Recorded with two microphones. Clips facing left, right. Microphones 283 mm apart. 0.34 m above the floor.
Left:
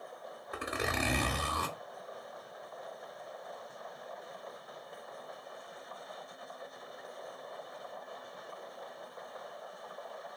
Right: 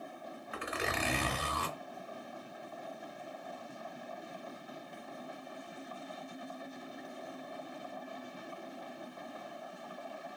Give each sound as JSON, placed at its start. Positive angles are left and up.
{"t": 0.5, "sound": "a zipper", "side_deg": 50, "distance_m": 0.9}